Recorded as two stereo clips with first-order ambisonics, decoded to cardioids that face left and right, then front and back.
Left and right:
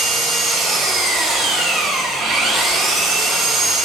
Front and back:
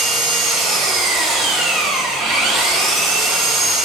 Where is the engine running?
135° right, 3 m.